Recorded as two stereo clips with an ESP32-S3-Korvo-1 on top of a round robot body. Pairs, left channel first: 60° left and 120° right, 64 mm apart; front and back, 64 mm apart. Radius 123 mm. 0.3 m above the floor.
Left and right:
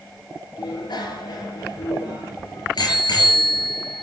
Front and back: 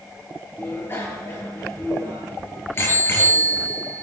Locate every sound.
0.6 s a bicycle bell: 55° left, 5.5 m